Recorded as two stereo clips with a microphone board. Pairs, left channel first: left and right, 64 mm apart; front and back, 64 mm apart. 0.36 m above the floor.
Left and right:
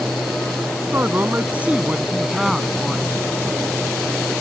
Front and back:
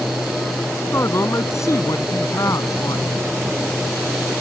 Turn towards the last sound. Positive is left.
turn(degrees=10)